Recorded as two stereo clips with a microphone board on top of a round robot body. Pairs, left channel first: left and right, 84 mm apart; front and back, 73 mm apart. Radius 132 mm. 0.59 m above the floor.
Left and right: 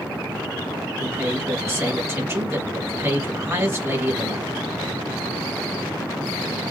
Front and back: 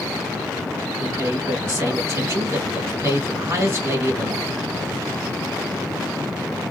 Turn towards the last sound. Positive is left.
turn(degrees=-135)